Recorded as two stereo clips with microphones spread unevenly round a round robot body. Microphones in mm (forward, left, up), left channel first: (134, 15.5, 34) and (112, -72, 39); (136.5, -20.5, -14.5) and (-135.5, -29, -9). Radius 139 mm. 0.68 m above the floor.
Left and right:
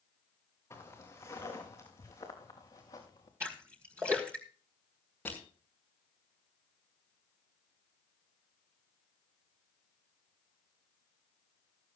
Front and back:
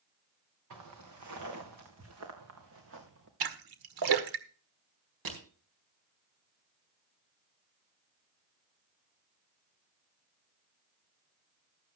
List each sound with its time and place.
0.7 s footsteps: 155° left, 4 m; by 3.3 s 135° left, 3 m
3.4 s a splash: straight behind, 1.5 m
5.2 s crushing: 160° left, 4.5 m